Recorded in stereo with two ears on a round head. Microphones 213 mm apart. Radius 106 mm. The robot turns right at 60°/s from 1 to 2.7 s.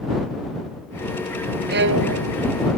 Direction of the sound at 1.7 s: 140° right.